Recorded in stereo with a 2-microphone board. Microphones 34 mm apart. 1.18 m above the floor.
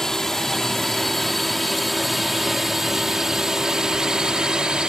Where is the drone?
15° left (ahead or behind); by 4.9 s 25° right (ahead or behind).